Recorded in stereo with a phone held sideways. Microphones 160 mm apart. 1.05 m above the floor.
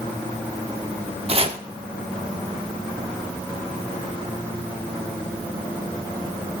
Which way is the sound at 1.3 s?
40° right (ahead or behind).